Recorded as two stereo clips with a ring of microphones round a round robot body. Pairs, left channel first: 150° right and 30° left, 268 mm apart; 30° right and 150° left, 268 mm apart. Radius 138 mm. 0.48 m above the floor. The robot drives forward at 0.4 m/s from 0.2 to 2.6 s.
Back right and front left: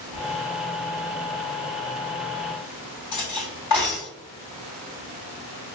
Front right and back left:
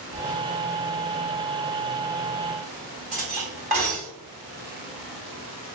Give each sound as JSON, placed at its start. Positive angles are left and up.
{"t": 0.1, "sound": "whispering", "azimuth_deg": -115, "distance_m": 0.9}
{"t": 3.1, "sound": "cutlery clinking", "azimuth_deg": -145, "distance_m": 1.8}